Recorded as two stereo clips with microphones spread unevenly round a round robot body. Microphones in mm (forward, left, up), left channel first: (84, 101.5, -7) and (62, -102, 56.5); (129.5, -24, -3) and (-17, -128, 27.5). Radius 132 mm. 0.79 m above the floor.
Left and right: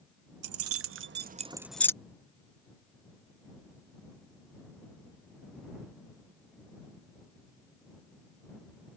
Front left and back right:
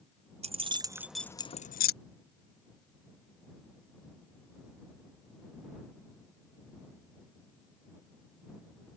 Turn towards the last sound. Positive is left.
turn(degrees=15)